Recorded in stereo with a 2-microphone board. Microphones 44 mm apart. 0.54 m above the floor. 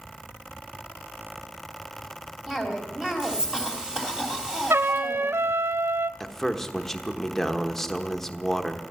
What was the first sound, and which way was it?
A cough, 15° right (ahead or behind).